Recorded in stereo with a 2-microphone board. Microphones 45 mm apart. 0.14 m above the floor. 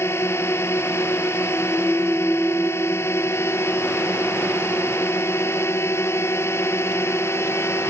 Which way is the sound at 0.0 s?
60° left (ahead or behind).